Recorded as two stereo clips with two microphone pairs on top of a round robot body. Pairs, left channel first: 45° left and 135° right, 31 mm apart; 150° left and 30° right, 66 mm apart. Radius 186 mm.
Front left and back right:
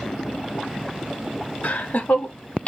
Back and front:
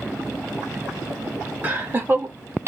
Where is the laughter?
35° left, 1.5 m; by 2.7 s 10° left, 1.1 m.